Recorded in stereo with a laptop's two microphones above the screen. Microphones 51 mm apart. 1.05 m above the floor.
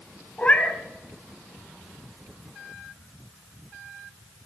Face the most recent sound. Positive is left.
turn(degrees=30)  # may be behind; listen again after turning